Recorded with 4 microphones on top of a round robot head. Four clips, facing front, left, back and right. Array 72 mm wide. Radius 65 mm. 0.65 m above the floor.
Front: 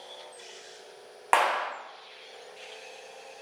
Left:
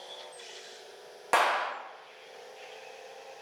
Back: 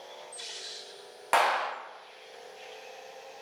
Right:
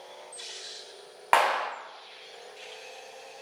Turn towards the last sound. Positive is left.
turn(degrees=-50)